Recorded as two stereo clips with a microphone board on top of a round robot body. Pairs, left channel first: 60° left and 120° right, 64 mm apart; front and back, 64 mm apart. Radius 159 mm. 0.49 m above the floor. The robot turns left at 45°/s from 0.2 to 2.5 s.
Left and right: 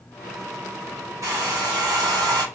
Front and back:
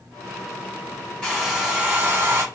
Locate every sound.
1.2 s a hair dryer: 75° right, 1.0 m; by 2.4 s 130° right, 1.0 m